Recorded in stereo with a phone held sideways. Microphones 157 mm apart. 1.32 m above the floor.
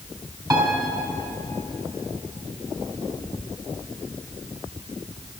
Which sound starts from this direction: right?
A piano, at 0.5 s.